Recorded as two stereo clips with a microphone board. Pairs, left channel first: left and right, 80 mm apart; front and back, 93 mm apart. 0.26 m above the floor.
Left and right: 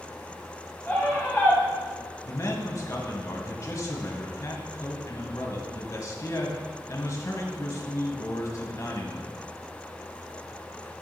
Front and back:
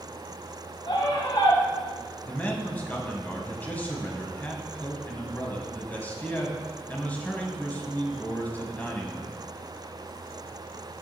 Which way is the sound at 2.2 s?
65° left.